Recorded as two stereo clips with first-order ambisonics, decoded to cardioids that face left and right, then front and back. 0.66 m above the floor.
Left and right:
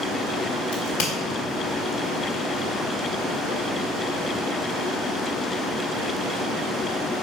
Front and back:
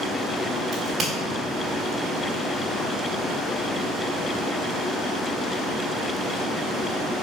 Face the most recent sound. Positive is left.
turn(degrees=100)